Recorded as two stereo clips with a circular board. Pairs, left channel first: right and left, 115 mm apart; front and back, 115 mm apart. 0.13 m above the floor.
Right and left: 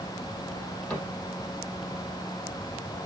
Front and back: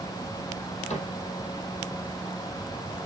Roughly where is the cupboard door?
Ahead.